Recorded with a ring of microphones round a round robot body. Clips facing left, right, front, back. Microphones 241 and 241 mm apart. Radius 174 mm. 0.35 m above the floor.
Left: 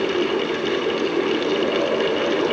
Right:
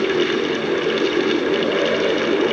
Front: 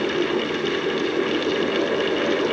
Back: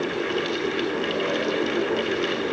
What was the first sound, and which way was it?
Only background noise.